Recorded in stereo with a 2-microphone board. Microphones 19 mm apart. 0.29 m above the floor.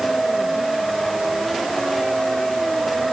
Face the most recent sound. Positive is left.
No sound to turn to.